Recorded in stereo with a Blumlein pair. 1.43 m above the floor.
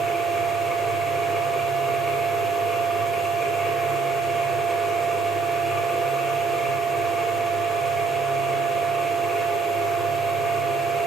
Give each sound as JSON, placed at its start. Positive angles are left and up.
{"t": 0.0, "sound": "a machine running", "azimuth_deg": 0, "distance_m": 3.0}